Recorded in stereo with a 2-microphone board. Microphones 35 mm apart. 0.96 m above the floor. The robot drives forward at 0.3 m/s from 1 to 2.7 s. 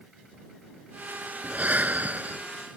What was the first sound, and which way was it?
Breathing, 50° right (ahead or behind).